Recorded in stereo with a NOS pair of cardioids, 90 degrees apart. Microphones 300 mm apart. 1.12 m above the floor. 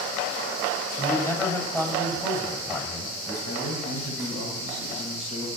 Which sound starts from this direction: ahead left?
A man speaking, at 3.5 s.